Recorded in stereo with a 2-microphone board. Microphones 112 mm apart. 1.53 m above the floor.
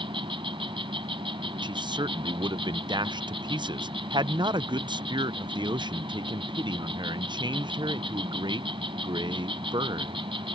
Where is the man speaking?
45° right (ahead or behind).